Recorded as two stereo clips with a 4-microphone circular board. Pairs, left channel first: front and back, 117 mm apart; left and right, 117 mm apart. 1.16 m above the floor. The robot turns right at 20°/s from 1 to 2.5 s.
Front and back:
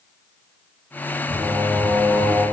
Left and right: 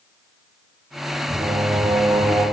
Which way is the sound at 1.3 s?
130° right.